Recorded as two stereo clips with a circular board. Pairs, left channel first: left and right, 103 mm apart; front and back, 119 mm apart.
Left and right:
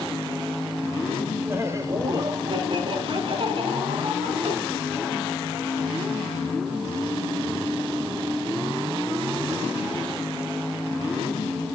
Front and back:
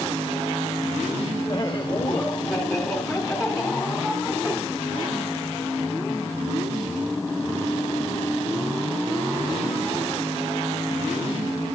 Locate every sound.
1.5 s laughter: 40° right, 1.5 m; by 4.6 s 105° right, 4 m